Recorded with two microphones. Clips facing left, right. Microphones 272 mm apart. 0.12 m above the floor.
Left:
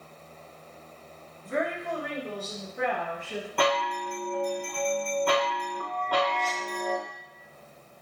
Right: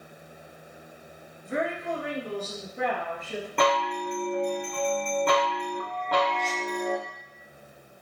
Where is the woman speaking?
5° right (ahead or behind), 1.6 m; by 3.5 s 50° right (ahead or behind), 2 m.